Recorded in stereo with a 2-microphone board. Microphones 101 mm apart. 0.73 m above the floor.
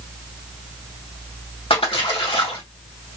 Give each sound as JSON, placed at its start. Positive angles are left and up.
{"t": 1.7, "sound": "a splash", "side_deg": 65, "distance_m": 2.0}